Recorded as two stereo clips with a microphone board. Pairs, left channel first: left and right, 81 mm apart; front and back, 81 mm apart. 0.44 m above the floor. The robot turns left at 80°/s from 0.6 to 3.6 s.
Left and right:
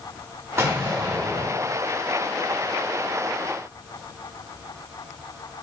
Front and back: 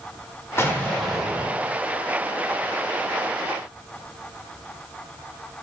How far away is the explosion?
About 1.0 m.